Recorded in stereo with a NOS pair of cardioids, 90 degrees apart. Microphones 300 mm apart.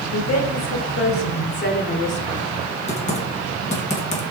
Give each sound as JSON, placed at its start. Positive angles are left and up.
{"t": 0.1, "sound": "a woman speaking", "azimuth_deg": 65, "distance_m": 4.0}
{"t": 2.9, "sound": "typing on a keyboard", "azimuth_deg": 25, "distance_m": 3.5}